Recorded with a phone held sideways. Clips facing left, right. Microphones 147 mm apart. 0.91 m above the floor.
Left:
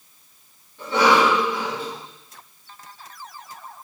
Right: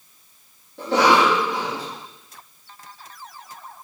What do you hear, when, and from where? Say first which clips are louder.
0.8 s a cough: right 1 dB; 75° right (ahead or behind), 2.5 m